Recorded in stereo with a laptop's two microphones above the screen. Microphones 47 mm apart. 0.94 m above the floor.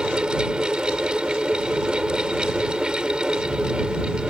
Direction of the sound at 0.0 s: 20° right (ahead or behind).